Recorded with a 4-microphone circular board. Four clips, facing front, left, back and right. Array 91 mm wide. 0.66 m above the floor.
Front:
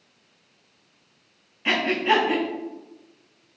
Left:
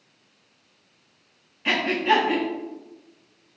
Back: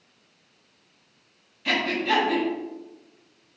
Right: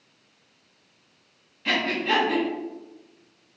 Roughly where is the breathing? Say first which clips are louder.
Left 3 dB, front 3 dB; ahead left.